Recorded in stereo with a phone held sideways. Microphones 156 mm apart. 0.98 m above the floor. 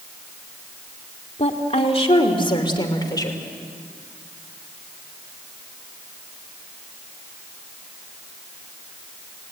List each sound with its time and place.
1.4 s a woman speaking: 45° left (ahead or behind), 2.5 m; by 3.4 s 25° left (ahead or behind), 3 m